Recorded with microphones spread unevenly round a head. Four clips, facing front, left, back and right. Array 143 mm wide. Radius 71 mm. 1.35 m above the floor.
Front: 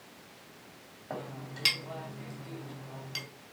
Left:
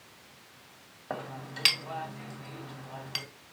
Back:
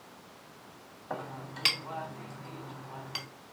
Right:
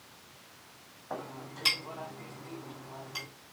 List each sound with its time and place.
1.1 s a clink: 70° left, 1.9 m